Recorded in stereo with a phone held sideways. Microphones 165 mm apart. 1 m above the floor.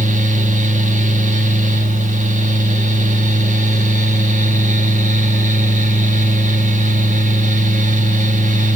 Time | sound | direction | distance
0.0 | a fan | 55° right (ahead or behind) | 2.5 m